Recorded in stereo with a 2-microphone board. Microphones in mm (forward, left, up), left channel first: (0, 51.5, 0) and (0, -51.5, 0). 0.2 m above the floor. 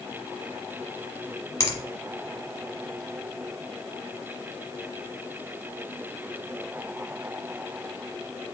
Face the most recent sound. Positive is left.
turn(degrees=30)  # may be behind; listen again after turning